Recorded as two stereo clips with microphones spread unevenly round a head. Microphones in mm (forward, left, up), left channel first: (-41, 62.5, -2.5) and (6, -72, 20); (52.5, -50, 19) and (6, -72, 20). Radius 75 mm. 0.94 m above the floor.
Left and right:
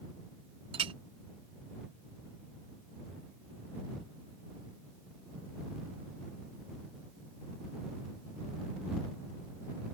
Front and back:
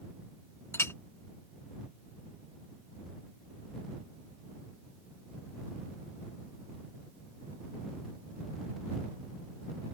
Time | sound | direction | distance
0.7 | a clink | 15° right | ?